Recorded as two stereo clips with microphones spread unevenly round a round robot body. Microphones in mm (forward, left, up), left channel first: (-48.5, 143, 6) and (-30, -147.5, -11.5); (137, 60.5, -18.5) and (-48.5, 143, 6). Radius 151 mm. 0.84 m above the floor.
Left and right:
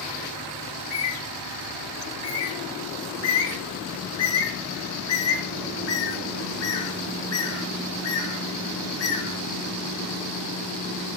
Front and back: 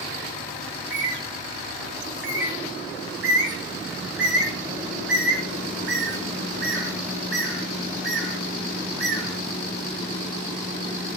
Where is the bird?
130° left, 1.2 m.